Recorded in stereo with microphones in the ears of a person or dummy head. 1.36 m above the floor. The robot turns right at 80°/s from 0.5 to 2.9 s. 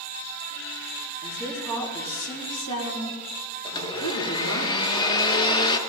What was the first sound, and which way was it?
A woman speaking, 35° right.